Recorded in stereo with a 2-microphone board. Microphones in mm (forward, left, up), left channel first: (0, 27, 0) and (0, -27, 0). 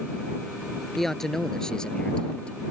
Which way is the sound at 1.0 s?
5° left (ahead or behind).